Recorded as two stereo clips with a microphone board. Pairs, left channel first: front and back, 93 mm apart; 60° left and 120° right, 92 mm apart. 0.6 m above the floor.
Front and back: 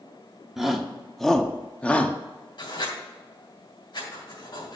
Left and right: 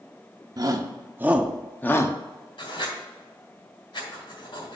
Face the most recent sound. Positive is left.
turn(degrees=35)